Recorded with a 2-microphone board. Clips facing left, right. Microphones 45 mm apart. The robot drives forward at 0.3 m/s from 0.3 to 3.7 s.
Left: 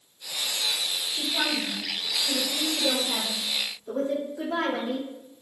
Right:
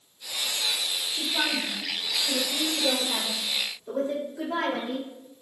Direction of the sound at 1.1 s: 35° right (ahead or behind).